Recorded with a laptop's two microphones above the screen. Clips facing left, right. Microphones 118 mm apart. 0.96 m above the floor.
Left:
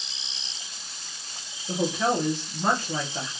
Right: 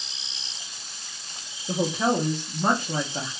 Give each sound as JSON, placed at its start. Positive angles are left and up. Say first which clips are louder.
{"t": 1.7, "sound": "a woman speaking", "louder": "right 1 dB", "side_deg": -15, "distance_m": 0.6}